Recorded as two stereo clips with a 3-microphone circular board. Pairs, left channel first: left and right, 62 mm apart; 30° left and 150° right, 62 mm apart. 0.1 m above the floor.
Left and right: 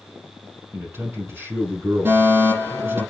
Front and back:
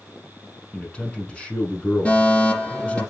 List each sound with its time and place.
0.7 s a man speaking: 40° right, 4 m
2.0 s a fire alarm: 40° right, 5.5 m